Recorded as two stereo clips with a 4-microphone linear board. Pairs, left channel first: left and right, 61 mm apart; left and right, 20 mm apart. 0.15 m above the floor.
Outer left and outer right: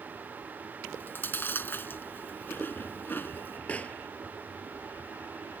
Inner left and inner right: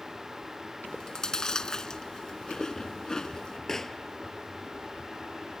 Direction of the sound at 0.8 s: 35° left (ahead or behind).